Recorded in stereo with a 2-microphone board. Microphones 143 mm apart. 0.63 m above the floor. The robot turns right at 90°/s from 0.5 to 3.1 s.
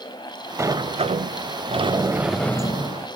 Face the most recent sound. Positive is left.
turn(degrees=70)